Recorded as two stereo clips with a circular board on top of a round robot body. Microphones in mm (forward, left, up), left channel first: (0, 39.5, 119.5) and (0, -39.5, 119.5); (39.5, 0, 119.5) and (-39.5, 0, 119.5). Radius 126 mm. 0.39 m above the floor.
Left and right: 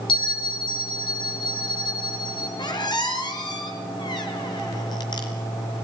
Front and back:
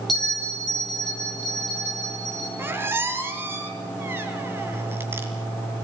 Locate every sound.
0.1 s a bell: 85° left, 7.5 m
2.6 s a squeak: 120° left, 4.5 m